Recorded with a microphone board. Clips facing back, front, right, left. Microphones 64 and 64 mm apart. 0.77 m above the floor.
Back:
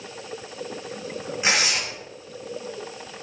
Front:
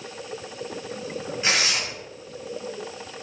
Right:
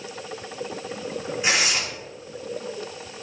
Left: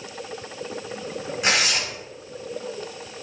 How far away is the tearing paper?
About 5.5 m.